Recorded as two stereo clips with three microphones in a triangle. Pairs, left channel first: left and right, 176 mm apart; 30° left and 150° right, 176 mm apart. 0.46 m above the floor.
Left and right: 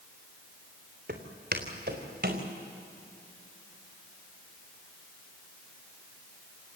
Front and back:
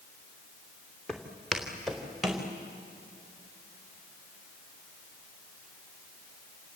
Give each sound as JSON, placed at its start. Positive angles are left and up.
{"t": 1.1, "sound": "footsteps", "azimuth_deg": -60, "distance_m": 3.5}